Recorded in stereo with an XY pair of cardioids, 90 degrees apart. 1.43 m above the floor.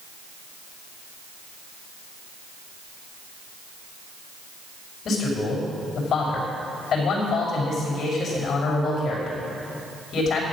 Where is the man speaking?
65° left, 5.5 m.